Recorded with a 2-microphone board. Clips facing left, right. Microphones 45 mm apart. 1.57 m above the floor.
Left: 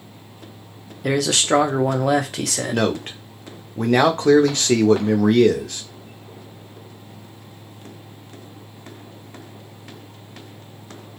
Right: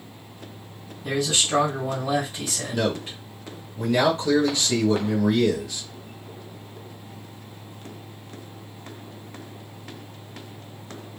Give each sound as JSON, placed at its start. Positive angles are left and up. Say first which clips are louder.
{"t": 1.0, "sound": "a man speaking", "louder": "left 5 dB", "side_deg": 85, "distance_m": 0.6}
{"t": 2.7, "sound": "a man speaking", "louder": "left 3 dB", "side_deg": 60, "distance_m": 0.6}